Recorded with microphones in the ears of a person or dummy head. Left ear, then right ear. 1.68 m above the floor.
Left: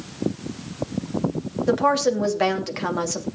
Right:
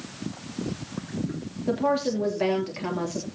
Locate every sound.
1.7 s a woman speaking: 45° left (ahead or behind), 2.5 m